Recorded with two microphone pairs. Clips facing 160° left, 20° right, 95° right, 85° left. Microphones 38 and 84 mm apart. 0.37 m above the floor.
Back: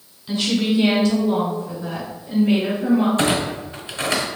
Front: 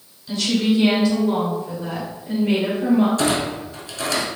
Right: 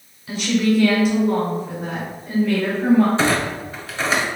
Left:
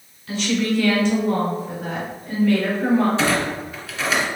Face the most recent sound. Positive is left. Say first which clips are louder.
# back 1 dB, right 1 dB
turn(degrees=-150)